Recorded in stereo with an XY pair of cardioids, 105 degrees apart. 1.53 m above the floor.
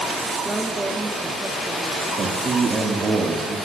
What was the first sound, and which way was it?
A woman speaking, 10° right.